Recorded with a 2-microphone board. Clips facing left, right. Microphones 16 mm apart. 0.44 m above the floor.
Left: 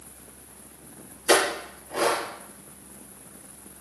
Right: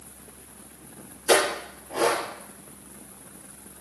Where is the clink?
5° left (ahead or behind), 3 m.